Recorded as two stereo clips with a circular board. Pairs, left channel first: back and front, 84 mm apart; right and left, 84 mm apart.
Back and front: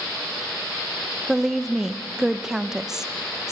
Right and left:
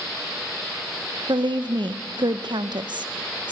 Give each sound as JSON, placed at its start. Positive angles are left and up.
{"t": 1.3, "sound": "a woman speaking", "azimuth_deg": 85, "distance_m": 0.8}